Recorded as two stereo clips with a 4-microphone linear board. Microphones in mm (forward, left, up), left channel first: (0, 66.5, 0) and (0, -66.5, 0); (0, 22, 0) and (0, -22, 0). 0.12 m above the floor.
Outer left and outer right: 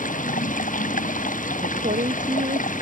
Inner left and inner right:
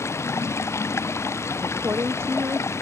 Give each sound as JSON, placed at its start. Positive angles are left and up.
{"t": 0.0, "sound": "running water", "side_deg": 80}
{"t": 1.6, "sound": "a woman speaking", "side_deg": -75}